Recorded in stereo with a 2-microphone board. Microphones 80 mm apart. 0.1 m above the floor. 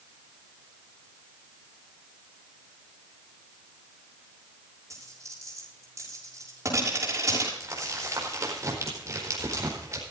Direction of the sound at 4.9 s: 40° right (ahead or behind).